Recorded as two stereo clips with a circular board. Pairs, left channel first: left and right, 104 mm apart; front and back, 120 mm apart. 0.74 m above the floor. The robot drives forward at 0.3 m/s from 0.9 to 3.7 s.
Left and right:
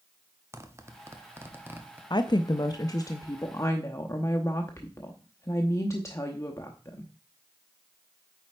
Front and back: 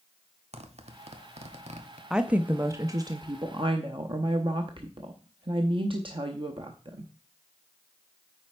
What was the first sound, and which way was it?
A zipper, 155° right.